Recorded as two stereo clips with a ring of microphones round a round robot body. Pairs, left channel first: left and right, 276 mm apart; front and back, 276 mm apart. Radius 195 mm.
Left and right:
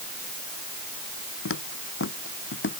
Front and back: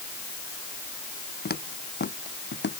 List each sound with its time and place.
1.4 s footsteps: 55° left; by 2.8 s 45° left